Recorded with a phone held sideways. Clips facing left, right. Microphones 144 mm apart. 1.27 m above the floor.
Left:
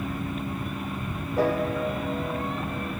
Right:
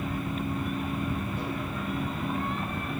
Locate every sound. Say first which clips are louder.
1.4 s a piano: left 9 dB; 85° left